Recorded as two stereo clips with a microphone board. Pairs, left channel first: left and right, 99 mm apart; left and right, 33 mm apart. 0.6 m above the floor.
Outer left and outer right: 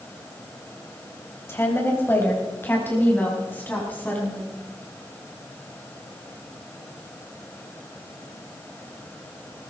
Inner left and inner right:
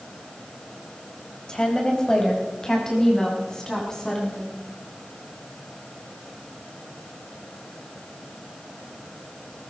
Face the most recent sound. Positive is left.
turn(degrees=20)  # may be behind; listen again after turning